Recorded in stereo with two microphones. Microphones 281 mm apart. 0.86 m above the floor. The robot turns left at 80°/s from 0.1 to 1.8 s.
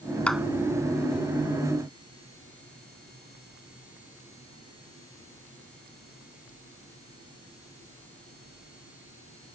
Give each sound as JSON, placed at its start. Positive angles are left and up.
{"t": 0.3, "sound": "a clap", "side_deg": 5}